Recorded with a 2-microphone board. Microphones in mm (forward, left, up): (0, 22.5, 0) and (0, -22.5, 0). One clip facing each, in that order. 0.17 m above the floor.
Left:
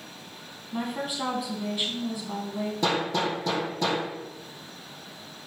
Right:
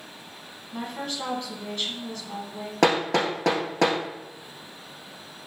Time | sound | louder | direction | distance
0.7 | a woman speaking | left 2 dB | 15° left (ahead or behind) | 1.1 m
2.8 | hammering | right 6 dB | 65° right (ahead or behind) | 1.4 m